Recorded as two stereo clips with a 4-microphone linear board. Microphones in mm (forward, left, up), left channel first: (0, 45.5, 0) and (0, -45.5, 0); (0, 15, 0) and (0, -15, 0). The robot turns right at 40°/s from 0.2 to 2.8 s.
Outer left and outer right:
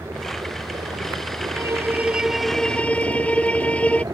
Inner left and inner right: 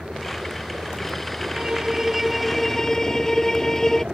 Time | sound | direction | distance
0.0 | a helicopter | 150° right | ?
1.5 | a violin | 35° right | ?